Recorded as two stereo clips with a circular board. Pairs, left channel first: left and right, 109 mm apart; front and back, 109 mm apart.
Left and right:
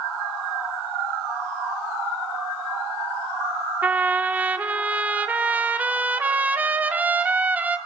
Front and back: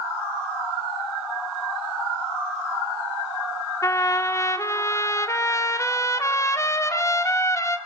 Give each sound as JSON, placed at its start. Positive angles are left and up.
{"t": 3.8, "sound": "a trumpet", "azimuth_deg": -30, "distance_m": 1.3}